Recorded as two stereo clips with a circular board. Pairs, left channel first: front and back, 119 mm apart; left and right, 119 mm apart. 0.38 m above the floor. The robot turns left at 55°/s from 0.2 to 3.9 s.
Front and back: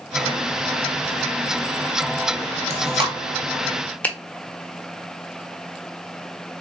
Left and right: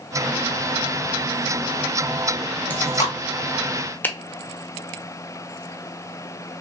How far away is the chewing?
About 0.7 m.